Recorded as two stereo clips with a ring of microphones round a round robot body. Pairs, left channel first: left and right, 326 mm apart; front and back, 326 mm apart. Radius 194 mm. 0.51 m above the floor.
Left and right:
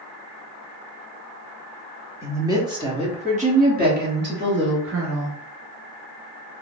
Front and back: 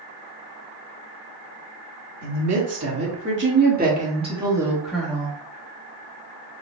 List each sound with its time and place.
2.2 s a woman speaking: 170° right, 2 m; by 5.4 s 75° right, 1.6 m